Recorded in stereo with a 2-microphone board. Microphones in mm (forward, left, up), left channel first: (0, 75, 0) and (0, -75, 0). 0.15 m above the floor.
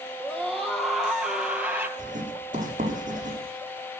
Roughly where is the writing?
Right.